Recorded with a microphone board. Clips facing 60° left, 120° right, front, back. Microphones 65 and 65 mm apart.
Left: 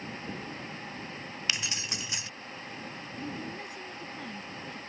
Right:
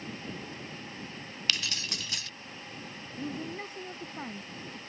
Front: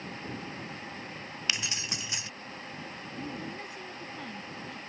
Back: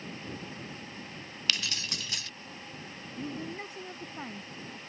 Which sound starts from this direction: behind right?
A woman speaking, at 3.2 s.